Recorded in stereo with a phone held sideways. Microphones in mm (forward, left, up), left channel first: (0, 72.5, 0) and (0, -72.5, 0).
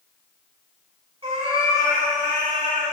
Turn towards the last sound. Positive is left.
turn(degrees=-50)  # may be behind; listen again after turning